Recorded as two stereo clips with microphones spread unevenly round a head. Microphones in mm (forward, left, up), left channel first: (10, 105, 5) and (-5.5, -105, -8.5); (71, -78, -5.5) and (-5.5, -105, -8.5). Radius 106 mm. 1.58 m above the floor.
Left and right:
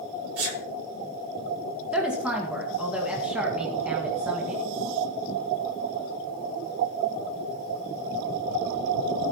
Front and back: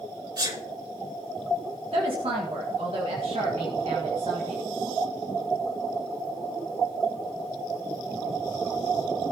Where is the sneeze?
130° right, 6 m.